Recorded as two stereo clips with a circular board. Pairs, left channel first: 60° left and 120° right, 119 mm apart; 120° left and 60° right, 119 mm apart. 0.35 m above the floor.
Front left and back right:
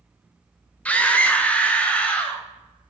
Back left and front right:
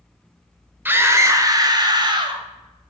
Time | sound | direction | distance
0.8 | a scream | 5° right | 0.9 m